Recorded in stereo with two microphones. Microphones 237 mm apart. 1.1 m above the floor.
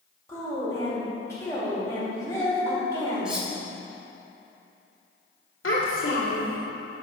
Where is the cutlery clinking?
5° right (ahead or behind), 1.2 m.